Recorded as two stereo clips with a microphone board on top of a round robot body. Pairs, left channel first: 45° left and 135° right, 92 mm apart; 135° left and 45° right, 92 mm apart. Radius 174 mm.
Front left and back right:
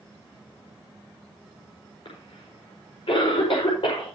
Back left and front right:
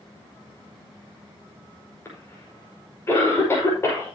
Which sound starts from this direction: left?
A cough, at 2.0 s.